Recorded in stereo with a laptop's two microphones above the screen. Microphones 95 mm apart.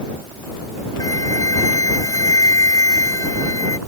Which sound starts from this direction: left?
A flute, at 1.0 s.